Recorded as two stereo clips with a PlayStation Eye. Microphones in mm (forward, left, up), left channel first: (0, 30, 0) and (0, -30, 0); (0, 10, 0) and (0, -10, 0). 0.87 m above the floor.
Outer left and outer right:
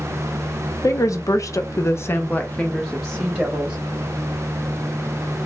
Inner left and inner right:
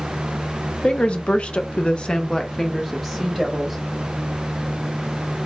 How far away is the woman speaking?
About 0.9 m.